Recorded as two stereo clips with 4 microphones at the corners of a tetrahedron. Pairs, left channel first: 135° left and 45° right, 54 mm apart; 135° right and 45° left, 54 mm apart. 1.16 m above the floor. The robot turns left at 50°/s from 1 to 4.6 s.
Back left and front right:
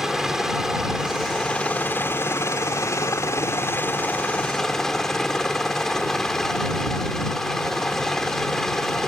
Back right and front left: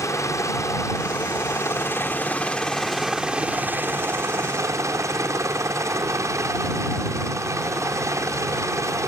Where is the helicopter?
125° right; by 9.1 s 55° left.